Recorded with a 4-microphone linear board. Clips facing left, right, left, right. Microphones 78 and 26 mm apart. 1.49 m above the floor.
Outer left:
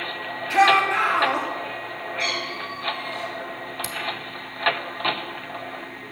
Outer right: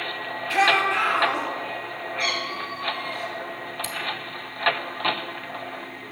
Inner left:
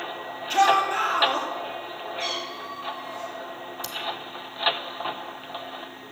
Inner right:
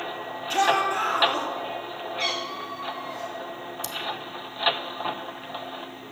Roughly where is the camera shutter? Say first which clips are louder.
Even, even; centre.